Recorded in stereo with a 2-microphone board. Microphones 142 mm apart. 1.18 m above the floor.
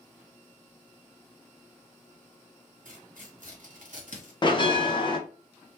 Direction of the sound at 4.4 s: 35° left (ahead or behind).